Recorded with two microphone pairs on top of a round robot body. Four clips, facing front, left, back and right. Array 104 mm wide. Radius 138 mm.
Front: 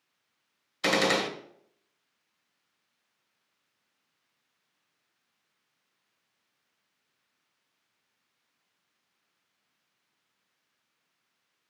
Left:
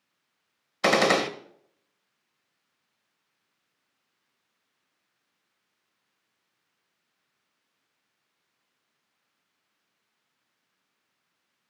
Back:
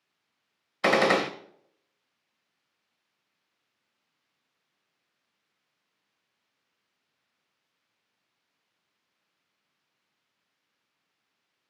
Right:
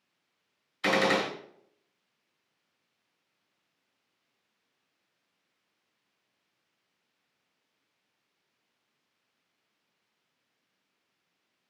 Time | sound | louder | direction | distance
0.8 | a gunshot | left 4 dB, back 4 dB | 125° left | 1.6 m